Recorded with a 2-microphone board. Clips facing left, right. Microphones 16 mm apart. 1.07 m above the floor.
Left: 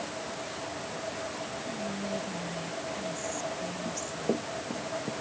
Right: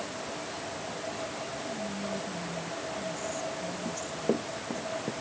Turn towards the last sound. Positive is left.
turn(degrees=-20)  # may be behind; listen again after turning